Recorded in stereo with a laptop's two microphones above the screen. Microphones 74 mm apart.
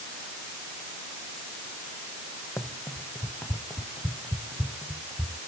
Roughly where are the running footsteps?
Left.